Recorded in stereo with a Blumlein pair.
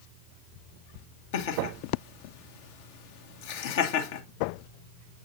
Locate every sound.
1.3 s laughter: 50° left, 2 m